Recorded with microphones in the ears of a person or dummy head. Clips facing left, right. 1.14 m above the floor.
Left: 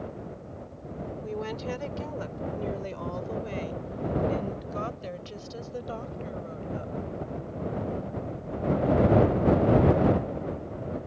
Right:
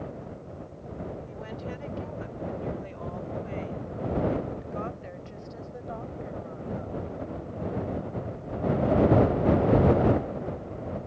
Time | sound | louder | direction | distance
1.2 | a woman speaking | left 5 dB | 70° left (ahead or behind) | ?